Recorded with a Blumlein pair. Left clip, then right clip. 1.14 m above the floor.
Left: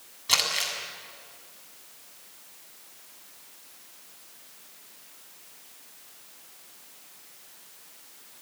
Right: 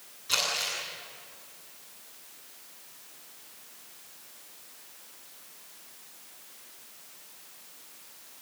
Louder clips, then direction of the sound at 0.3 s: Left 3 dB; 60° left.